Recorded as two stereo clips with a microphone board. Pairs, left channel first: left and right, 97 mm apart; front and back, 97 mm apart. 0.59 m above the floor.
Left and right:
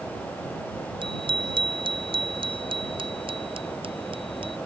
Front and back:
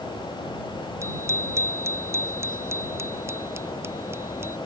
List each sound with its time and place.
1.0 s a bicycle bell: 120° right; by 4.6 s 115° right